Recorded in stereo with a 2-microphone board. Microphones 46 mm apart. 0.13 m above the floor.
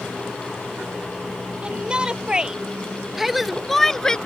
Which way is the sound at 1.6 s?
20° right (ahead or behind).